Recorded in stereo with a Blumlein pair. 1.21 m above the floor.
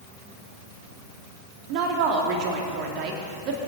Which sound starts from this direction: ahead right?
A woman speaking, at 1.7 s.